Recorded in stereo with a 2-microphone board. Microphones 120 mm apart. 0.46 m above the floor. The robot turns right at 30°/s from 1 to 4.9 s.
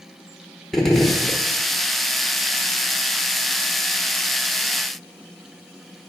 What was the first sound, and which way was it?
A gunshot, centre (ahead or behind).